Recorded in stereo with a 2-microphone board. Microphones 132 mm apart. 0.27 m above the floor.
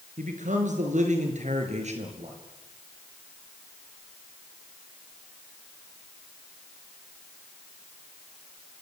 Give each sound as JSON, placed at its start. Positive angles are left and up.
{"t": 0.2, "sound": "a man speaking", "side_deg": -70, "distance_m": 5.5}